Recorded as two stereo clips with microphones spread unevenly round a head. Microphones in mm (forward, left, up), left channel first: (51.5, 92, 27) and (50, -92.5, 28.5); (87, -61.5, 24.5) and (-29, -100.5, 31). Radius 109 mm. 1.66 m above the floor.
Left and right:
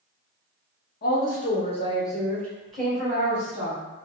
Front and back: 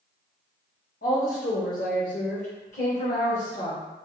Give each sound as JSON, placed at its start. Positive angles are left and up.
{"t": 1.0, "sound": "a woman speaking", "azimuth_deg": 55, "distance_m": 1.2}